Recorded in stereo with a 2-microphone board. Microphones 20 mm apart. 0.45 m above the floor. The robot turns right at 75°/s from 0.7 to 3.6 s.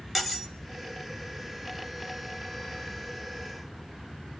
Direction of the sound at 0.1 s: 10° right (ahead or behind).